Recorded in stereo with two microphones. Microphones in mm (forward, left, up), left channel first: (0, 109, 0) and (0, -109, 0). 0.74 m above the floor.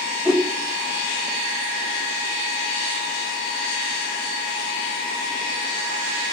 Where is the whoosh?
5° right (ahead or behind), 1.2 m.